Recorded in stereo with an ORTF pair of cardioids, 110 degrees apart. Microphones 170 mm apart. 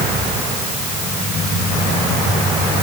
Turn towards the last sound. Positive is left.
No sound to turn to.